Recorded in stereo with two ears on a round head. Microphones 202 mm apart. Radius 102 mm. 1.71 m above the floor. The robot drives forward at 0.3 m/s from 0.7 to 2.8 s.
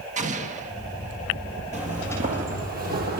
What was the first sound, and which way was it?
An explosion, 35° right (ahead or behind).